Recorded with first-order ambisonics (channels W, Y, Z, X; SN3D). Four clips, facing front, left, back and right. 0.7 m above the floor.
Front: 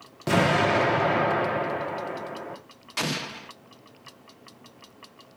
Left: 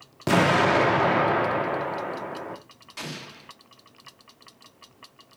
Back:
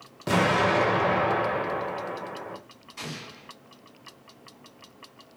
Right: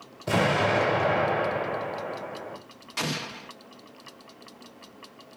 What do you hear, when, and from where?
0.3 s an explosion: 80° left, 1.4 m
3.0 s an explosion: 25° right, 0.6 m